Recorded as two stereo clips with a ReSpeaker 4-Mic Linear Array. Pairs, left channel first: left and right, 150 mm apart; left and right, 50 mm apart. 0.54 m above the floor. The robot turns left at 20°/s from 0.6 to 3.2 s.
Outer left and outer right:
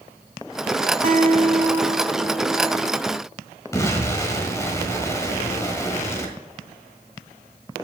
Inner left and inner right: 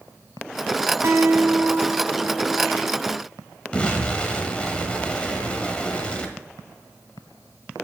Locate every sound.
1.0 s a guitar: 65° right, 0.8 m; by 3.0 s 105° right, 0.8 m
3.7 s an explosion: 20° left (ahead or behind), 1.4 m